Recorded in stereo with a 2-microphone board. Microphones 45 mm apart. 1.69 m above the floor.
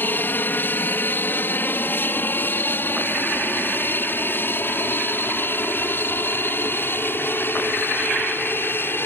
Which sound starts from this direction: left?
An aircraft, at 0.0 s.